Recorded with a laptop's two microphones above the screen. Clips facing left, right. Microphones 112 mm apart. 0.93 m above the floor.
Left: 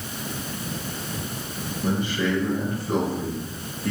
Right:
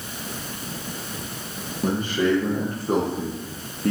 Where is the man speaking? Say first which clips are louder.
Right 3 dB; 50° right (ahead or behind), 0.8 m.